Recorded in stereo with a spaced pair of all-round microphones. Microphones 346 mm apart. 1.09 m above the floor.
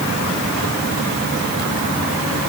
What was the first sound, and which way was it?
Only background noise.